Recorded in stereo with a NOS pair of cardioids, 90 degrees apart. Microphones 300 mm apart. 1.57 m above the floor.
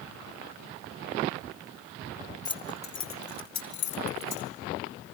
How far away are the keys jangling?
About 1.4 m.